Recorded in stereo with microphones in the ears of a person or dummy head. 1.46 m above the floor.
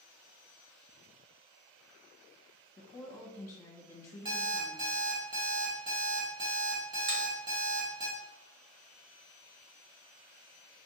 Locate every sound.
2.8 s a woman speaking: 20° left (ahead or behind), 1.1 m
4.2 s an alarm clock: 25° right (ahead or behind), 1.3 m
7.1 s a finger snap: 65° right (ahead or behind), 1.5 m